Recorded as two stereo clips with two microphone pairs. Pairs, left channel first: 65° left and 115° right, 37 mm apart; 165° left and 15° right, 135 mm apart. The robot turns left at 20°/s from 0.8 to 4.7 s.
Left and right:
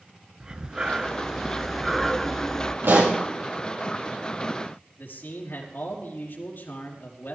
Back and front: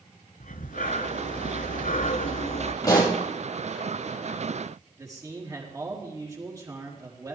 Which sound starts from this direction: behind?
Breathing, at 0.4 s.